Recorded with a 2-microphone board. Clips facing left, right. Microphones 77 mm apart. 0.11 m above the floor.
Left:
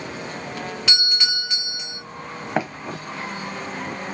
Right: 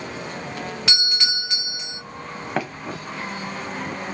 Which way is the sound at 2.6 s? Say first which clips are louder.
Left 2 dB; 10° left (ahead or behind).